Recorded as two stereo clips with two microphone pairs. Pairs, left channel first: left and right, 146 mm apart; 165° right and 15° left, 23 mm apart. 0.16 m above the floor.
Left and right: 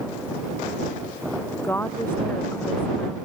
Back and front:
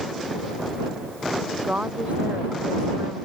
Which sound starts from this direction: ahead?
A woman speaking, at 1.6 s.